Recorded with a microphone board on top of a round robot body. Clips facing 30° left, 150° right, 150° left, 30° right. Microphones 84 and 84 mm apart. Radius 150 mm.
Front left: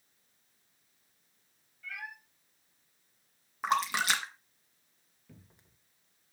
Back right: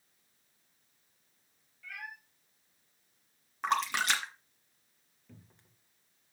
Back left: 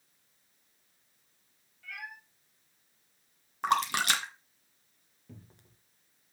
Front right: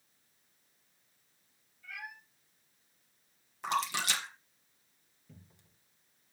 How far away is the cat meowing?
About 6.5 m.